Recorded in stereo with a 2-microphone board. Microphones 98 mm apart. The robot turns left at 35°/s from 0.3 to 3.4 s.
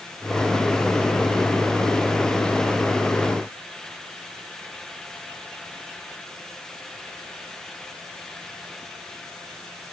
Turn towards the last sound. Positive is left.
No sound to turn to.